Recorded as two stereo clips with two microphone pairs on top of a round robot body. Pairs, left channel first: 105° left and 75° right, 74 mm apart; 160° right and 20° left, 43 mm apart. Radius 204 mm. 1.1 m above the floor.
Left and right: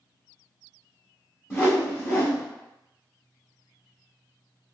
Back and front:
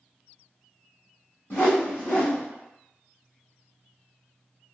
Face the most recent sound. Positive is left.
turn(degrees=160)